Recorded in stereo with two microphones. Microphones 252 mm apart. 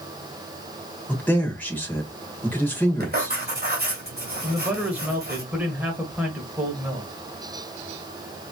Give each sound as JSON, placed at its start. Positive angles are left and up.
{"t": 1.1, "sound": "a man speaking", "side_deg": 5, "distance_m": 1.6}
{"t": 3.0, "sound": "writing", "side_deg": -40, "distance_m": 2.5}
{"t": 4.4, "sound": "a man speaking", "side_deg": -5, "distance_m": 1.4}